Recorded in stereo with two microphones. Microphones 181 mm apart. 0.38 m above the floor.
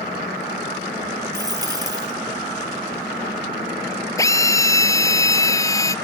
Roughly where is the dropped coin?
Right.